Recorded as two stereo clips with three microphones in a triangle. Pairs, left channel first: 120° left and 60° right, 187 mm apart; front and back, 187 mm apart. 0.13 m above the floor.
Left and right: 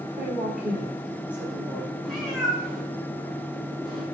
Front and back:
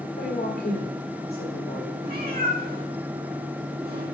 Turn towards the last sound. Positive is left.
turn(degrees=-150)